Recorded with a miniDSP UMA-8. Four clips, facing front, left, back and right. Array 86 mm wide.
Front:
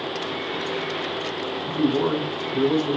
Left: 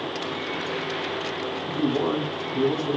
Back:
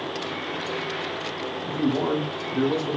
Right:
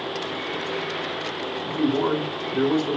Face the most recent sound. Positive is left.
turn(degrees=-65)